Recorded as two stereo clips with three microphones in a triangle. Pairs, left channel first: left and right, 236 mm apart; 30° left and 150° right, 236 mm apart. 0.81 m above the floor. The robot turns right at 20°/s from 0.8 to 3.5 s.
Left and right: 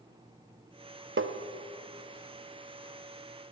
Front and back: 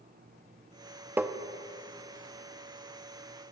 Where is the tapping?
70° right, 0.7 m; by 1.4 s 65° right, 0.7 m.